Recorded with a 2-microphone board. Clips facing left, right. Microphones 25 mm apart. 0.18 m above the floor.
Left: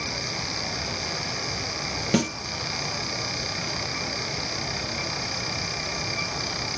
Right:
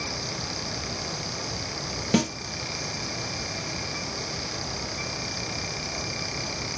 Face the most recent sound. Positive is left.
turn(degrees=0)  # may be behind; listen again after turning